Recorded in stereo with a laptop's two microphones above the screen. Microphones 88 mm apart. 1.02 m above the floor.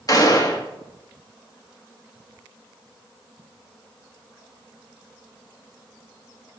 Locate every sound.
0.1 s a gunshot: 45° left (ahead or behind), 1.6 m